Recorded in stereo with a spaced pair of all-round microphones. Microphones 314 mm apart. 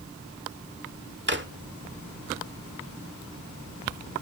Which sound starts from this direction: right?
A drawer, at 1.3 s.